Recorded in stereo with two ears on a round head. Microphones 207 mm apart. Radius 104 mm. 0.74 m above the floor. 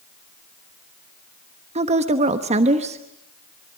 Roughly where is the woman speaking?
Right.